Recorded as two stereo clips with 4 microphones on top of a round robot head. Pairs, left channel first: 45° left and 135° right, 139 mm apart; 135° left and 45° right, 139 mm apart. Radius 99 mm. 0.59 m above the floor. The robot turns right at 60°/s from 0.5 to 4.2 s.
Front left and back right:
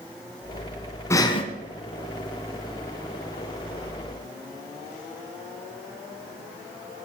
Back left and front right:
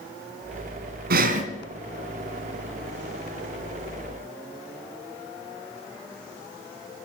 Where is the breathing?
25° right, 1.6 m; by 1.4 s 5° right, 1.6 m.